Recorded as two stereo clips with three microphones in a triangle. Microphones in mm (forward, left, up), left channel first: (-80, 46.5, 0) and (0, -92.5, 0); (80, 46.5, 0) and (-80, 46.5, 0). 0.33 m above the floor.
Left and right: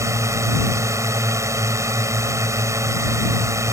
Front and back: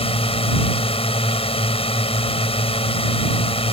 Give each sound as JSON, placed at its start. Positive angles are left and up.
{"t": 0.0, "sound": "a drone", "azimuth_deg": 0}